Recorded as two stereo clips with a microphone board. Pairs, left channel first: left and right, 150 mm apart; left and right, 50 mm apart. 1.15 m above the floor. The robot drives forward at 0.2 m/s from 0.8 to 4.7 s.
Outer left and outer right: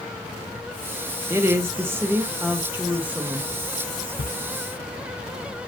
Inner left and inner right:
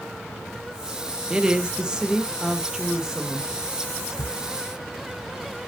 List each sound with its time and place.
1.3 s a woman speaking: 15° right (ahead or behind), 0.9 m; by 3.5 s 10° right (ahead or behind), 1.3 m
4.2 s a camera shutter: 75° left (ahead or behind), 0.6 m